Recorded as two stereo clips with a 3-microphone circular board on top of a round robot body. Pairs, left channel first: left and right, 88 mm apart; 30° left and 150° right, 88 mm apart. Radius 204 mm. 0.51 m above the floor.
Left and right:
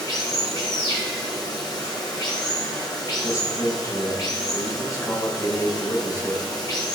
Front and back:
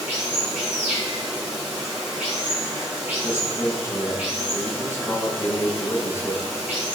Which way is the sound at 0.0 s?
135° left.